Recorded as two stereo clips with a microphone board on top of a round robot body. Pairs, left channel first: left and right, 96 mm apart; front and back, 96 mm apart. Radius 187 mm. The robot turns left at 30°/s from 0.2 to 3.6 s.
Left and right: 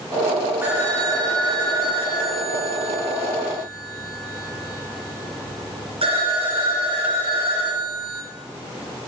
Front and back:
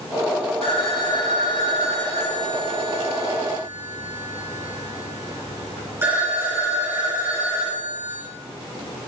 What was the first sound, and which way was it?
A phone ringing, 20° right.